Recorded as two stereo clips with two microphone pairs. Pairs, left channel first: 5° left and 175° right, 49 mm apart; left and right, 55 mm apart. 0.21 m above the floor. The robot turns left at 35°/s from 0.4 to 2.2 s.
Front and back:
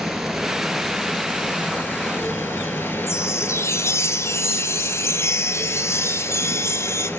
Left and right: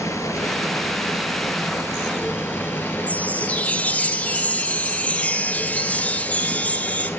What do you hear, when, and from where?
0.0 s running water: 100° left, 3 m; by 7.2 s 40° left, 3 m
3.1 s a chime: 20° left, 1.3 m